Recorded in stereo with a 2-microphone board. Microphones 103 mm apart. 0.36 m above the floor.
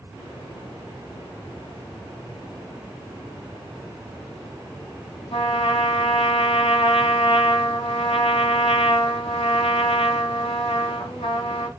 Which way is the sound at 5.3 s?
75° left (ahead or behind).